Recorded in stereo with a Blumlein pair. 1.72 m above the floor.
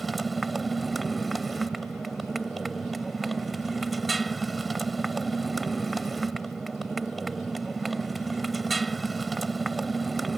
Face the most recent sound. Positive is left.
turn(degrees=-10)